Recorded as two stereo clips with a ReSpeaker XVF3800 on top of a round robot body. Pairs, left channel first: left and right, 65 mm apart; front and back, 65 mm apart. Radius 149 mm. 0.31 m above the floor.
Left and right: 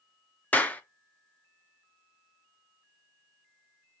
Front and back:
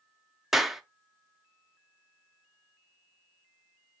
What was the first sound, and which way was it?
A clap, 100° left.